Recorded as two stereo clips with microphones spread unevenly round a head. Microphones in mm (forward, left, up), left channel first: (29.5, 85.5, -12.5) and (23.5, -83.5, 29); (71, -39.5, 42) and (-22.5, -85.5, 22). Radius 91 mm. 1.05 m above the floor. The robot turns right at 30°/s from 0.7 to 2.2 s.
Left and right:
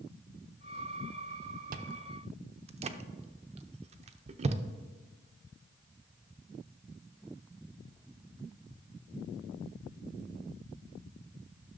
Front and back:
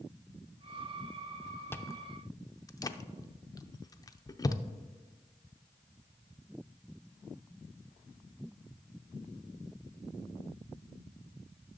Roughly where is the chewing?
Ahead right.